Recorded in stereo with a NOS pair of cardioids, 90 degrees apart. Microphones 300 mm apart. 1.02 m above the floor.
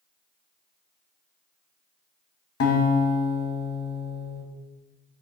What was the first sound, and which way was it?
A guitar, 55° left.